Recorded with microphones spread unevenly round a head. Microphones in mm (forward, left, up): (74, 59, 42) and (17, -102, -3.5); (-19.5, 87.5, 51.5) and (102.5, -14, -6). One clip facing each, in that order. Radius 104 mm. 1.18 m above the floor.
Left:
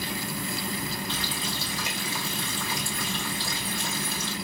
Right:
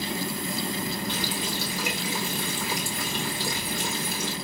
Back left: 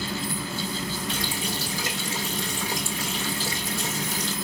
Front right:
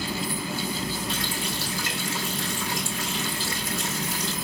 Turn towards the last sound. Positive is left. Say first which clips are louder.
# right 3 dB, even
turn(degrees=170)